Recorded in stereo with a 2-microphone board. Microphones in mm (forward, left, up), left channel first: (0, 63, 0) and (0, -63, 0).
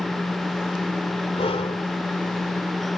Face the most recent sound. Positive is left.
turn(degrees=55)  # may be behind; listen again after turning